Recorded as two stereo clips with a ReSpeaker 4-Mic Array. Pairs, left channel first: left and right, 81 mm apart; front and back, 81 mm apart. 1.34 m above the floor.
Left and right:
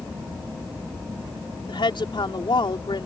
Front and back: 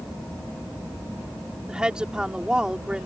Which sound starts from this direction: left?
A woman speaking, at 1.7 s.